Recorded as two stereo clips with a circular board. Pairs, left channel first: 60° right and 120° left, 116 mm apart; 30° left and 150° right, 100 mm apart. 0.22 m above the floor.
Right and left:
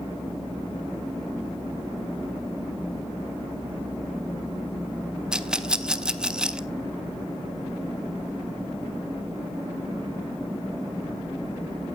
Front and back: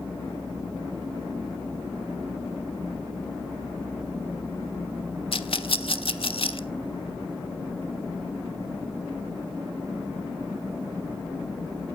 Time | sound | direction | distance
5.3 | a rattle | 40° left | 0.6 m